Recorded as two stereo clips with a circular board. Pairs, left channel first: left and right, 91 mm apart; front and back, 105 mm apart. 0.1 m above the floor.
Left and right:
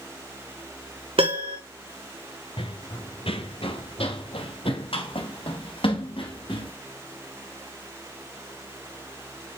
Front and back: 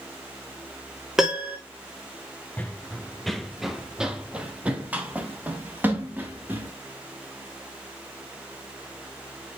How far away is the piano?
About 2.5 m.